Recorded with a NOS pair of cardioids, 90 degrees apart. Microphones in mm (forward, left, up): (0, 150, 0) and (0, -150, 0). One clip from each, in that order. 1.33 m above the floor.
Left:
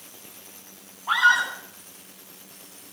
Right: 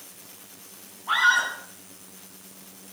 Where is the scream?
35° left, 9.5 m.